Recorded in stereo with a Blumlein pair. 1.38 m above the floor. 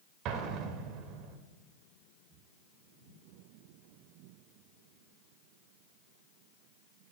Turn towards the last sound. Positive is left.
turn(degrees=-35)